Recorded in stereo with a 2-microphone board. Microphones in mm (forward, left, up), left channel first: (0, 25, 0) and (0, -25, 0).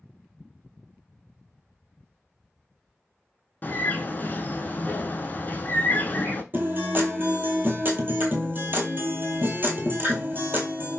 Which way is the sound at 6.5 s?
50° right (ahead or behind).